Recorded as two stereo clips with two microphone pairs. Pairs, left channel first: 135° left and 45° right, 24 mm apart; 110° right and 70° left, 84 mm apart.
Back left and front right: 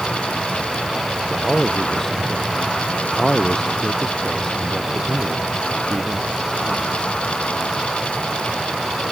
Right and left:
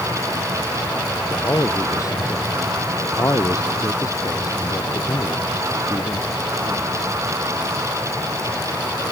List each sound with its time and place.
1.3 s a man speaking: 160° right; by 7.2 s 150° right